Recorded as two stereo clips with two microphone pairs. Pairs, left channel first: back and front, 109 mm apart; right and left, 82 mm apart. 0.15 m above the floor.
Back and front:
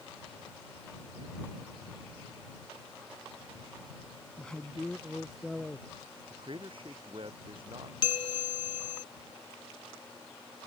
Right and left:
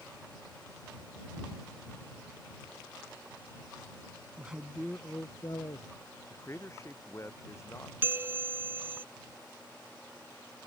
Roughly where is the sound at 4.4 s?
Behind left.